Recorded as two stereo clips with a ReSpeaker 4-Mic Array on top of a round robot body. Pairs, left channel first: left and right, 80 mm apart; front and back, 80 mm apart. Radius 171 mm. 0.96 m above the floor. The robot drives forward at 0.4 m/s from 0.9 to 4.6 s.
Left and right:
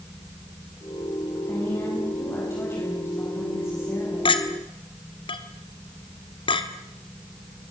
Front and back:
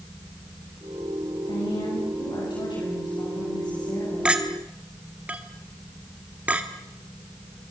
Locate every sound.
1.5 s a woman speaking: 25° left, 7.5 m; by 4.4 s 30° left, 6.5 m
4.2 s a clink: 100° left, 1.6 m; by 7.7 s 105° left, 1.6 m